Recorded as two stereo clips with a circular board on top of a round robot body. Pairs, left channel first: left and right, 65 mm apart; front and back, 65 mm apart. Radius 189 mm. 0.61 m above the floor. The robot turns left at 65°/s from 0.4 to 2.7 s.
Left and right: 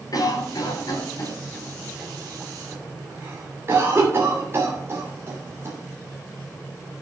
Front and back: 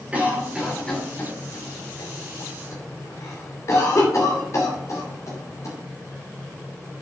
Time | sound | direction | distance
0.1 | a cough | 110° left | 2.5 m